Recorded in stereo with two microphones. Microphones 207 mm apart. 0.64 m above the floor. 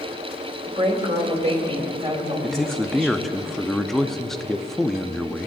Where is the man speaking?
Centre (ahead or behind), 0.5 m.